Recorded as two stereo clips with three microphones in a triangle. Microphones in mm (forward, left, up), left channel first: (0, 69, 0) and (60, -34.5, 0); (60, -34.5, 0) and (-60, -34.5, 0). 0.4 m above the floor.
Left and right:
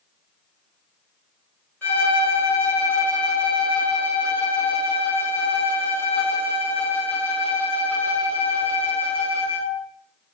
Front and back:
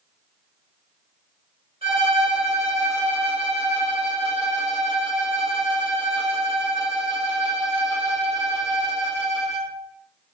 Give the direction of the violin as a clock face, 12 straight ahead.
6 o'clock.